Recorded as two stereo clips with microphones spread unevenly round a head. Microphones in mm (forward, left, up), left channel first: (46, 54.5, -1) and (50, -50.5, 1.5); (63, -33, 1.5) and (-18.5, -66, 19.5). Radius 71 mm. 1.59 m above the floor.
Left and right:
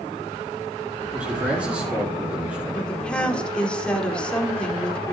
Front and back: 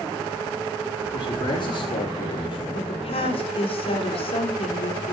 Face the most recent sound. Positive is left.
turn(degrees=10)